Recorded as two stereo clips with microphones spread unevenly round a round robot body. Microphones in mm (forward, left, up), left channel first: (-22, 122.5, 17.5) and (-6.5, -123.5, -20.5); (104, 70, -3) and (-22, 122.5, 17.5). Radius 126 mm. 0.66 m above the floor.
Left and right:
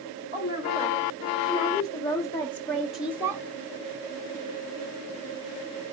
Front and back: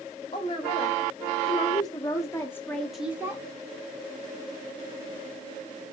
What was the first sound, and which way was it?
A woman speaking, 20° left.